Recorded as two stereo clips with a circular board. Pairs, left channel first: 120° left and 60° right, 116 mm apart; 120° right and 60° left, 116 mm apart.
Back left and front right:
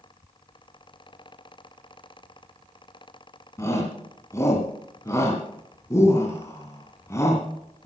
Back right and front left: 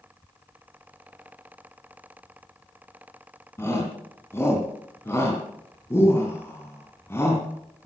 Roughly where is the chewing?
I don't hear chewing.